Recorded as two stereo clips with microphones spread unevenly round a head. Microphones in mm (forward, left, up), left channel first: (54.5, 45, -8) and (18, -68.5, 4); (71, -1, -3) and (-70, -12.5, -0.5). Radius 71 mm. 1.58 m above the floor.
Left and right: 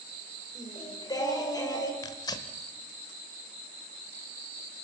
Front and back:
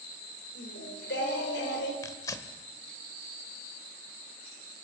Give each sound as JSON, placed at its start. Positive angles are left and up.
{"t": 0.6, "sound": "singing", "azimuth_deg": 15, "distance_m": 4.0}
{"t": 2.0, "sound": "tearing paper", "azimuth_deg": 50, "distance_m": 1.4}